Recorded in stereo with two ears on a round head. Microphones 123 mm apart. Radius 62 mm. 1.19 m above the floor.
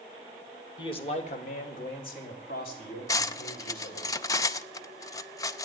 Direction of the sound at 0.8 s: 35° left (ahead or behind).